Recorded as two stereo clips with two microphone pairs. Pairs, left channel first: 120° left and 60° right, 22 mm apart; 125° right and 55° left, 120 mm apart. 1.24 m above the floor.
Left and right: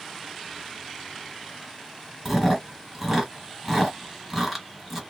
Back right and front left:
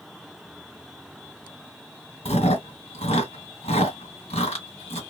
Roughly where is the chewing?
Behind right.